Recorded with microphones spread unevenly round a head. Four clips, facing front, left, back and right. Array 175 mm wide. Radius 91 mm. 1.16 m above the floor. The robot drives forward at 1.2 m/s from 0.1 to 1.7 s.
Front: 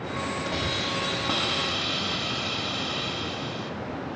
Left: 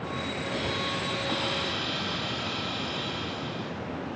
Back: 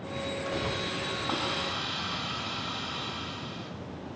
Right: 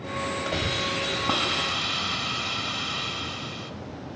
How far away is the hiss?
About 6 m.